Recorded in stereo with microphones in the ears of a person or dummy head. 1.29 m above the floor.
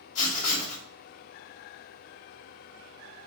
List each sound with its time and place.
0.1 s writing: 50° left (ahead or behind), 1.8 m